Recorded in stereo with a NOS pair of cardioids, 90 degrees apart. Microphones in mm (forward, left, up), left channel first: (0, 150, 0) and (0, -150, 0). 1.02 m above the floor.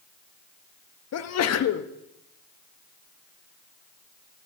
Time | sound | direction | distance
1.1 | a sneeze | 60° left | 1.2 m